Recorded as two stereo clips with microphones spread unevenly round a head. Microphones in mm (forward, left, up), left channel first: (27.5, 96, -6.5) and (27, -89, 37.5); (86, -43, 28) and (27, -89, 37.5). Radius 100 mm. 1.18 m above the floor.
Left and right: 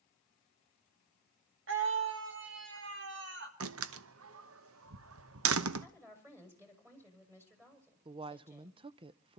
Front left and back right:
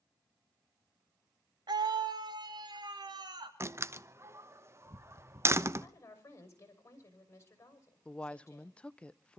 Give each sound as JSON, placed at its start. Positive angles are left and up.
{"t": 1.7, "sound": "a scream", "azimuth_deg": -120, "distance_m": 1.5}
{"t": 3.6, "sound": "a door slam", "azimuth_deg": -85, "distance_m": 0.9}
{"t": 5.8, "sound": "a woman speaking", "azimuth_deg": -15, "distance_m": 6.0}
{"t": 8.1, "sound": "a woman speaking", "azimuth_deg": -25, "distance_m": 0.6}